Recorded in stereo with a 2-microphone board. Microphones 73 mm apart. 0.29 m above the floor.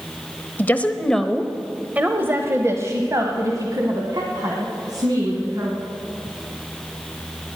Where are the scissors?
I don't hear scissors.